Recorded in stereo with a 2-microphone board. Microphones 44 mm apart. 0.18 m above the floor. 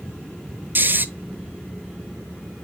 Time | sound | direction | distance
0.8 | snoring | 50° right (ahead or behind) | 0.6 m